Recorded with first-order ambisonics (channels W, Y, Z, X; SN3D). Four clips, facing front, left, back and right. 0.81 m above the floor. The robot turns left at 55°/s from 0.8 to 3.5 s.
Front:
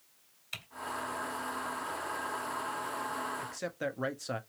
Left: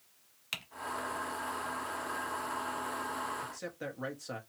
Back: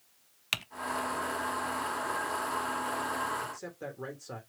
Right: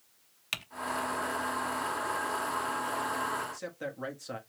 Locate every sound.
0.5 s typing on a keyboard: 165° right, 0.5 m
3.4 s a man speaking: straight ahead, 1.0 m; by 4.4 s 5° right, 1.0 m